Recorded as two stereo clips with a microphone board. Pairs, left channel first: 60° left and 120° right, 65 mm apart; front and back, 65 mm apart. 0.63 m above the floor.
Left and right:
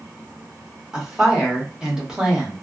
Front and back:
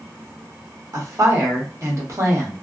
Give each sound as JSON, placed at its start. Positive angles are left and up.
{"t": 0.9, "sound": "a woman speaking", "azimuth_deg": 165, "distance_m": 1.0}